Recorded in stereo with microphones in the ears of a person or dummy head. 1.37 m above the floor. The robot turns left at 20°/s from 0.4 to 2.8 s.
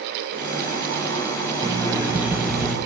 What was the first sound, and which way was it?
An alarm clock, 15° right (ahead or behind).